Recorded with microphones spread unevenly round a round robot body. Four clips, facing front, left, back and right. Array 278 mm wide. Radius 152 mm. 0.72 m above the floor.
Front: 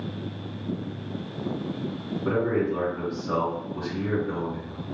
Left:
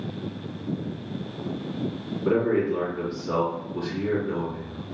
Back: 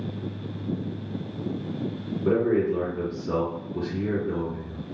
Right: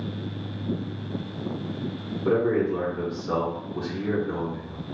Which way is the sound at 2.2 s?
165° right.